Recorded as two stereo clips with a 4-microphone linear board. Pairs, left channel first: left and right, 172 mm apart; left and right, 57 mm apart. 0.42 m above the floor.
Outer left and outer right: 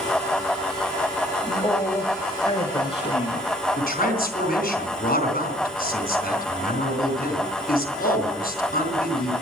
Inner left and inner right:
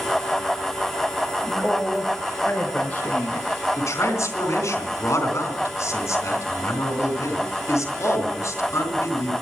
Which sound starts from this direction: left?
A man speaking, at 3.8 s.